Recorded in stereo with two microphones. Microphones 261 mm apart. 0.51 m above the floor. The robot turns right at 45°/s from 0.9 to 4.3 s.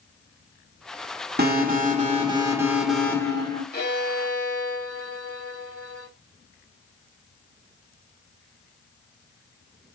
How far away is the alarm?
About 1.7 m.